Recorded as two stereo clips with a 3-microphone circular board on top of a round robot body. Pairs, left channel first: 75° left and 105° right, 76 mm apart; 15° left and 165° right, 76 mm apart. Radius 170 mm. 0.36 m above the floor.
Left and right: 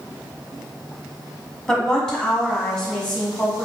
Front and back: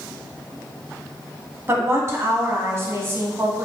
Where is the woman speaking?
155° left, 1.0 m.